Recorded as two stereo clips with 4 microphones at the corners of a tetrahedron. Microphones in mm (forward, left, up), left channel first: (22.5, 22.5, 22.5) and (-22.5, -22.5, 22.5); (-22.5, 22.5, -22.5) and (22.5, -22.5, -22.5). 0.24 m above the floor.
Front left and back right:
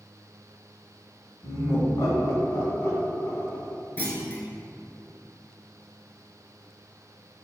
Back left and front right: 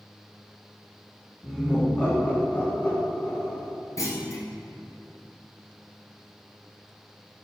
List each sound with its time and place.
1.4 s laughter: 55° left, 2 m; by 3.7 s 100° left, 2.5 m
4.0 s a clunk: 105° left, 1.1 m